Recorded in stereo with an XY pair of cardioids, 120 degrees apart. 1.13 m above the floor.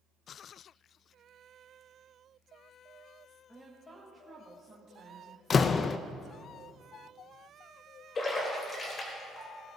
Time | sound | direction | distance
3.5 | a woman speaking | straight ahead | 1.5 m
5.5 | a door slam | 35° left | 0.5 m
8.2 | a splash | 35° left | 3.5 m